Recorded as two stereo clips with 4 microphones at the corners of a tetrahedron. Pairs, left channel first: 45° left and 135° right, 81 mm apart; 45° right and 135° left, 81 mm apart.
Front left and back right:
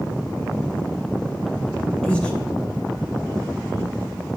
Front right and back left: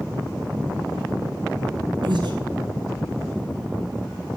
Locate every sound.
2.0 s breathing: 120° left, 1.3 m